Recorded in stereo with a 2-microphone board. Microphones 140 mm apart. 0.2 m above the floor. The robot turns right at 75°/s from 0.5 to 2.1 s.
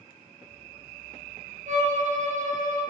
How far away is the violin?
About 1.9 m.